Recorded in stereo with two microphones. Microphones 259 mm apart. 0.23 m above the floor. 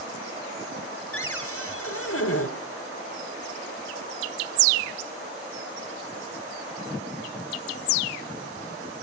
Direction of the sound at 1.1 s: 70° left (ahead or behind).